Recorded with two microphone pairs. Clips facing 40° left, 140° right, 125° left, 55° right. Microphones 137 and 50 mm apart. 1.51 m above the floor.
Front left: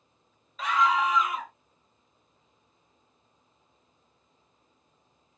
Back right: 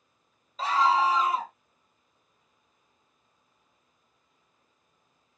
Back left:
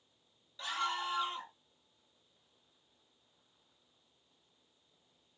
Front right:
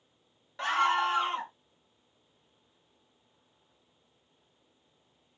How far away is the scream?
About 0.7 m.